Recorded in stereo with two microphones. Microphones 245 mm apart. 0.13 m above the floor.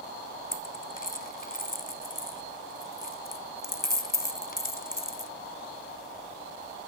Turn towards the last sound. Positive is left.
turn(degrees=35)  # may be behind; listen again after turning